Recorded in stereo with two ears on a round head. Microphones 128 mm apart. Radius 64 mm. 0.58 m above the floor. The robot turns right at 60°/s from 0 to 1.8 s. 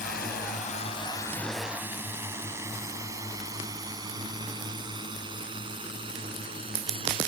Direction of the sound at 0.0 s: 65° left (ahead or behind).